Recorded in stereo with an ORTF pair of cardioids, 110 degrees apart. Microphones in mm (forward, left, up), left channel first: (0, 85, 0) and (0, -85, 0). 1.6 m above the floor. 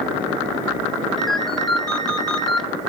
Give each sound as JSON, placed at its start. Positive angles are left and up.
{"t": 1.2, "sound": "a ringtone", "azimuth_deg": 0, "distance_m": 3.0}